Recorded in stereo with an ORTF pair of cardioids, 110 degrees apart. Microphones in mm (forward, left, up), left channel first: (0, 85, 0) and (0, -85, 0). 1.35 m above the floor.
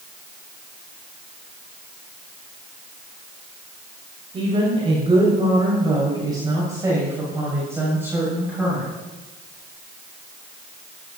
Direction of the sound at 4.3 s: 35° right.